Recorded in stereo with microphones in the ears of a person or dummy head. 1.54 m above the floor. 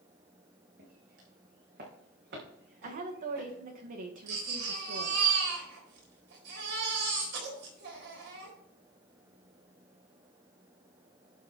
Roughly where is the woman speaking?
Right.